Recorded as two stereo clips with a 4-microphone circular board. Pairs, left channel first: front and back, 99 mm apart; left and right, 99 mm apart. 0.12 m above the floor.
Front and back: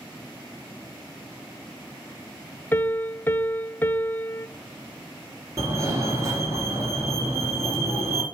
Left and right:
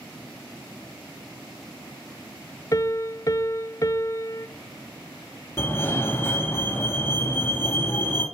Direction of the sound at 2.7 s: 60° left.